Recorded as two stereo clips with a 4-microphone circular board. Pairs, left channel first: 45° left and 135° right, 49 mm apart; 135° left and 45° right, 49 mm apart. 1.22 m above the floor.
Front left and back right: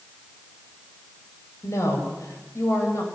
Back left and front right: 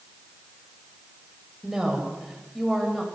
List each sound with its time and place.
1.6 s a woman speaking: 40° left, 7 m; by 3.0 s 50° left, 7.5 m